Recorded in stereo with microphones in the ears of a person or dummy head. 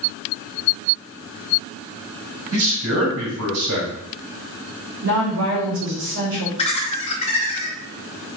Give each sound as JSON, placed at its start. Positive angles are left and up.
{"t": 2.5, "sound": "a man speaking", "side_deg": -80, "distance_m": 4.0}
{"t": 5.0, "sound": "a woman speaking", "side_deg": -70, "distance_m": 4.0}
{"t": 6.6, "sound": "laughter", "side_deg": 30, "distance_m": 1.6}